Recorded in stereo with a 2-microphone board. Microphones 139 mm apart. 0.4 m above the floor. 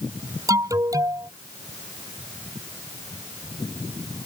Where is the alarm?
25° right (ahead or behind).